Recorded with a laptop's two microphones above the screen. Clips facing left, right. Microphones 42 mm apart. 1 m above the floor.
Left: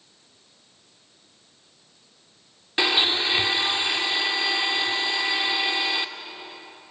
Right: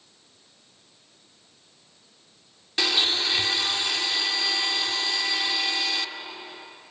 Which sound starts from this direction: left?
A blender, at 2.8 s.